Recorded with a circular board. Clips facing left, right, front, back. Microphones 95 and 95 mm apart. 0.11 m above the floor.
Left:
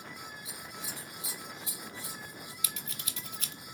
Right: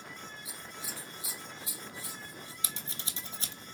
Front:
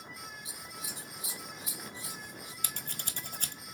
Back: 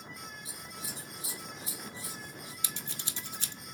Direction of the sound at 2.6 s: 35° right.